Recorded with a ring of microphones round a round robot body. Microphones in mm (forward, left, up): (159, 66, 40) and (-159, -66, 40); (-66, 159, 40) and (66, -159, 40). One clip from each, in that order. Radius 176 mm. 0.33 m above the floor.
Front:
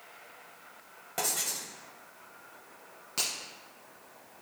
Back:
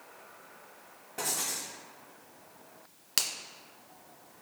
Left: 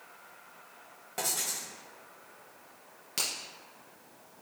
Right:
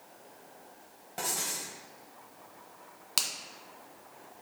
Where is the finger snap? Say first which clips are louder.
Back 2 dB, right 2 dB; 120° right, 1.9 m.